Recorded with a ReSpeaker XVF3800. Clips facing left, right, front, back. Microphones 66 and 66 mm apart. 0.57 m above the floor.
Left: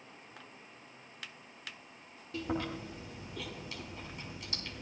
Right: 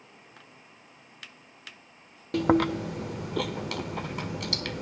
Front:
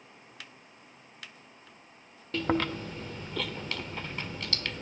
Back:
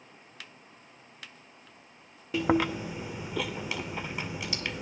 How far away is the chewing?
About 0.7 m.